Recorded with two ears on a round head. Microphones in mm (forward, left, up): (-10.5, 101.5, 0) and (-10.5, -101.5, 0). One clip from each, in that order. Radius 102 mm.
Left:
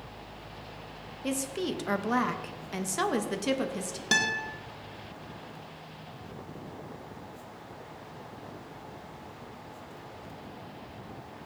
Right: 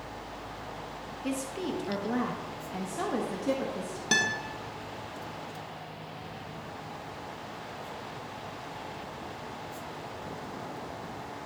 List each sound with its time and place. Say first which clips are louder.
1.2 s a woman speaking: left 2 dB; 20° left (ahead or behind), 1.0 m; by 4.0 s 85° left, 1.4 m
4.1 s a guitar: left 1 dB; 5° left (ahead or behind), 1.4 m